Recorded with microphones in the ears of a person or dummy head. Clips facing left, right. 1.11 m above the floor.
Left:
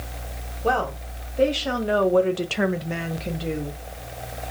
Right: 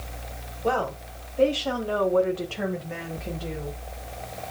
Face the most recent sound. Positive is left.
turn(degrees=30)  # may be behind; listen again after turning